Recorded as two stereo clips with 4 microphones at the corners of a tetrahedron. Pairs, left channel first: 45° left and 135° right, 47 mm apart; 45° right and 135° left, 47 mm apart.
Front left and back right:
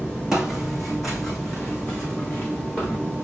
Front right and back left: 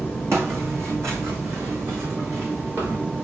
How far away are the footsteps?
About 2 m.